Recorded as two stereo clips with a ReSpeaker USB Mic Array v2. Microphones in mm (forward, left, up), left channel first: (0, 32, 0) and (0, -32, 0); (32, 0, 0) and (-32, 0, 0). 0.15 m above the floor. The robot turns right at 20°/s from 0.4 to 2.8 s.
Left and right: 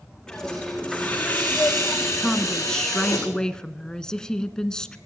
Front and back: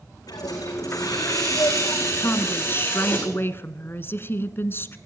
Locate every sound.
0.3 s a hiss: 10° left, 8 m; by 3.2 s 55° left, 8 m
2.2 s a woman speaking: 5° left, 1.4 m; by 5.0 s 15° left, 1.4 m